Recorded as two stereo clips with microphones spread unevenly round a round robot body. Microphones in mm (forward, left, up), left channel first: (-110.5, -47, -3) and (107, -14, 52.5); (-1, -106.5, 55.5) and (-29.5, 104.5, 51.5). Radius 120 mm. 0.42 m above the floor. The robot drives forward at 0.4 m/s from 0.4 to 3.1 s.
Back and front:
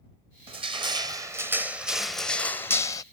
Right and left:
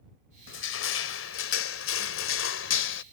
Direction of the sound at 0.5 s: 60° right.